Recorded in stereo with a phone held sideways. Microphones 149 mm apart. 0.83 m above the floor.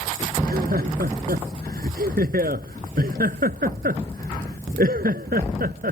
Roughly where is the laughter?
Right.